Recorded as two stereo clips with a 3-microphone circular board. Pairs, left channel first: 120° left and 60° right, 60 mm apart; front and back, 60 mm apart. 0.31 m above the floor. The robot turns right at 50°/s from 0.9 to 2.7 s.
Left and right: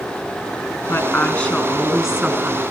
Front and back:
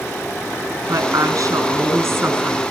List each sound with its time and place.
0.9 s a woman speaking: 170° left, 3.5 m; by 2.6 s 105° right, 3.5 m